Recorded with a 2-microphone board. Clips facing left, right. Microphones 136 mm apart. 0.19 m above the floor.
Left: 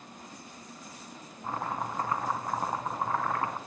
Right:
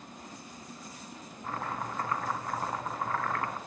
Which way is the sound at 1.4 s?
20° left (ahead or behind).